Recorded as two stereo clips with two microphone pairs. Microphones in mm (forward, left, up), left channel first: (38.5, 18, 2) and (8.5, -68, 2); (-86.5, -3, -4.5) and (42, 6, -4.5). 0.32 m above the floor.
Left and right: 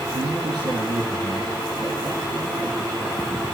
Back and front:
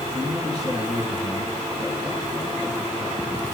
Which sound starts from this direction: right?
A man speaking, at 0.1 s.